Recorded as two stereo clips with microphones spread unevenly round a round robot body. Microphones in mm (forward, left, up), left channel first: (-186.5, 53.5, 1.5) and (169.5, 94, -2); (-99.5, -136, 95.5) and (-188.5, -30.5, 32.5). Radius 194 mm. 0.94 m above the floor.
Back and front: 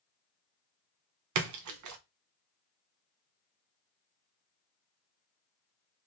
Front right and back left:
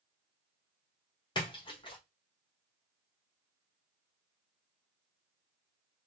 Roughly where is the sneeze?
No sneeze in this recording.